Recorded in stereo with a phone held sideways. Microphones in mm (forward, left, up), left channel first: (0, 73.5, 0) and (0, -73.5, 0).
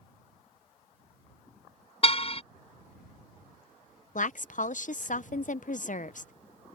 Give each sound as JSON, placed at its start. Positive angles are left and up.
{"t": 2.0, "sound": "a car horn", "side_deg": 45}
{"t": 4.2, "sound": "a woman speaking", "side_deg": 60}